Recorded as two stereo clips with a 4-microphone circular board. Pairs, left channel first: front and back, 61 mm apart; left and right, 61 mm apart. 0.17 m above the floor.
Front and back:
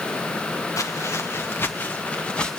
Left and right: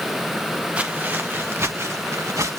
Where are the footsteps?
25° right, 1.8 m; by 2.6 s 75° right, 2.5 m.